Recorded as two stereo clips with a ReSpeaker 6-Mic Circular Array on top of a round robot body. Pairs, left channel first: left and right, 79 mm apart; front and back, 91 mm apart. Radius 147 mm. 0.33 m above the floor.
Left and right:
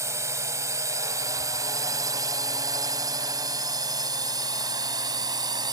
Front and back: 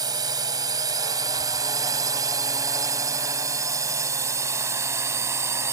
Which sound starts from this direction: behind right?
A drone, at 0.0 s.